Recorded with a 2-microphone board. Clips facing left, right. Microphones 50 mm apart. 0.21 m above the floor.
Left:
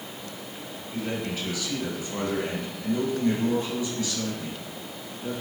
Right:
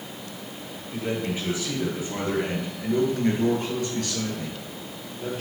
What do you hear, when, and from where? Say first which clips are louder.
0.9 s a man speaking: right 3 dB; 15° right (ahead or behind), 4.5 m; by 5.4 s 65° right (ahead or behind), 4.5 m